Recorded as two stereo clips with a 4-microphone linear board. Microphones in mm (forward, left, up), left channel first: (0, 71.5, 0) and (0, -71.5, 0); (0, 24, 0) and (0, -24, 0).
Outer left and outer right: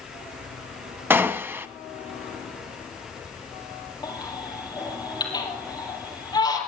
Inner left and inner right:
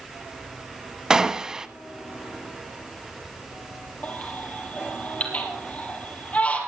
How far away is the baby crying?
About 3 m.